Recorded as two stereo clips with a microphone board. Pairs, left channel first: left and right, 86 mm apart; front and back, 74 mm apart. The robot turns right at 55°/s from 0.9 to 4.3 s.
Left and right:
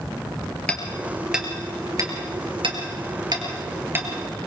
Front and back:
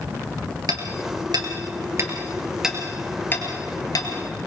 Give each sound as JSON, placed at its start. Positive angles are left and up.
{"t": 0.7, "sound": "hammering", "azimuth_deg": 165, "distance_m": 3.0}